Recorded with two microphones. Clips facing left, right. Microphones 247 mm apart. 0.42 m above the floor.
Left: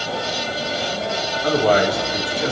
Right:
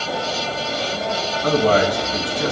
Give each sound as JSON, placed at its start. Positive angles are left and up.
{"t": 1.4, "sound": "a man speaking", "side_deg": -50, "distance_m": 3.0}